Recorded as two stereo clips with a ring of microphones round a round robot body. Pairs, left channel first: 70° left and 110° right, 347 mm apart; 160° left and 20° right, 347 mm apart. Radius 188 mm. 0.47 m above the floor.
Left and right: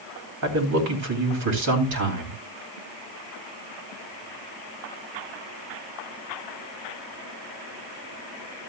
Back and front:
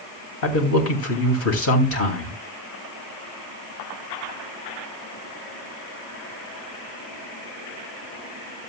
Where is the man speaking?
155° right, 3 m.